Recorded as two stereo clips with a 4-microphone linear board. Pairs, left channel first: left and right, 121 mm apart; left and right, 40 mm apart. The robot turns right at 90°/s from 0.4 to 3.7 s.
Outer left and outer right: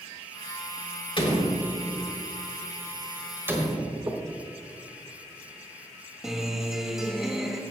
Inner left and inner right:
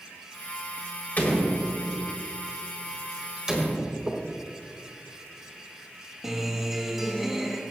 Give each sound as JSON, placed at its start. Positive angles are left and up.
{"t": 1.2, "sound": "a door slam", "side_deg": 45, "distance_m": 3.5}
{"t": 4.1, "sound": "knocking", "side_deg": -30, "distance_m": 1.7}
{"t": 6.2, "sound": "a guitar", "side_deg": -5, "distance_m": 2.0}